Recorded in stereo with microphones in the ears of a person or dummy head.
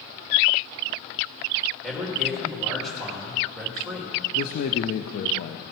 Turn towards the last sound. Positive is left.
turn(degrees=45)  # may be behind; listen again after turning